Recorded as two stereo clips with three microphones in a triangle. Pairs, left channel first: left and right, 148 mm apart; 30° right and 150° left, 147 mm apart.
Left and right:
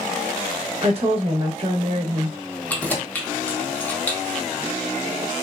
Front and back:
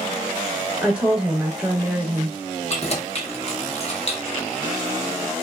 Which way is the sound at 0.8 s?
130° right.